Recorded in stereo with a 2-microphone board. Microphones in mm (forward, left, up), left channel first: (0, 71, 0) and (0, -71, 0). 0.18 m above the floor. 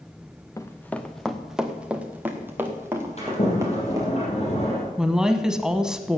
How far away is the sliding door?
About 5.5 m.